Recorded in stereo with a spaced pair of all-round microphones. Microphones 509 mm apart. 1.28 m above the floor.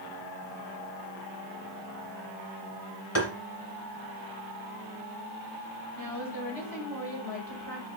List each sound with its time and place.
3.1 s tapping: 30° left (ahead or behind), 1.9 m
6.0 s a woman speaking: 45° left (ahead or behind), 4 m